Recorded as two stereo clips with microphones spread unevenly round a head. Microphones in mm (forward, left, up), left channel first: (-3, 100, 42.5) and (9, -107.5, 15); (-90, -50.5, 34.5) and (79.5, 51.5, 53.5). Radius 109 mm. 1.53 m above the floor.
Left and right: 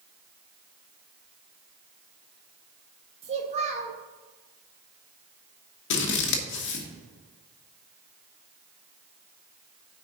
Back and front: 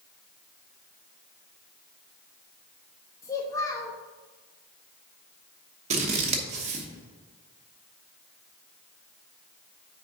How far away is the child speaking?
About 0.9 m.